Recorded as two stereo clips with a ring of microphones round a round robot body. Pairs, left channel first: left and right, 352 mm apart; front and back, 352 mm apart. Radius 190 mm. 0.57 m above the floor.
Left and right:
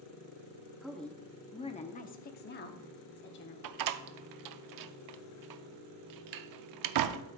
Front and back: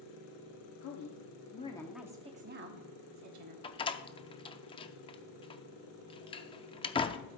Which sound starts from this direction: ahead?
A woman speaking, at 0.8 s.